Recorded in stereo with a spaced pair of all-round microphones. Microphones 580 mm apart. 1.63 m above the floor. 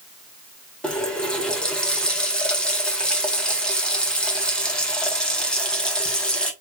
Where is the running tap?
Centre (ahead or behind), 1.2 m.